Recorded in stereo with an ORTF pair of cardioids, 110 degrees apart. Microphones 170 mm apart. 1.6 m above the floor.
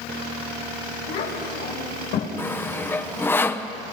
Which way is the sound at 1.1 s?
65° left.